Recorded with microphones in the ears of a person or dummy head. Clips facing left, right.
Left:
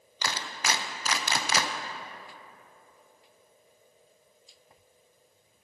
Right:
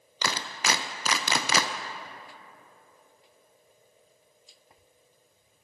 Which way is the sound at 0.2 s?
70° right (ahead or behind).